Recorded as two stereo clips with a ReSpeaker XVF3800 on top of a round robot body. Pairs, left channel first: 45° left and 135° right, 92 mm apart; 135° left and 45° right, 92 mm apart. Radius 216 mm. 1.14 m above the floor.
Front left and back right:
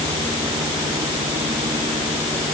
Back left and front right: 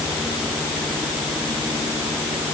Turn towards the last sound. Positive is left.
No sound to turn to.